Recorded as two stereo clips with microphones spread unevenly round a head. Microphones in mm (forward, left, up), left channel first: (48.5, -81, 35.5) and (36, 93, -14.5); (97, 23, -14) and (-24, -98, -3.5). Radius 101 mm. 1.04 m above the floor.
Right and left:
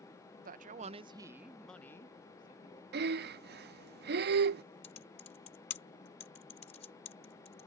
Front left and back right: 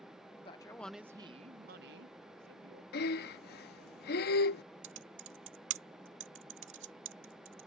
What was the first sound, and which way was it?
A man speaking, 105° left.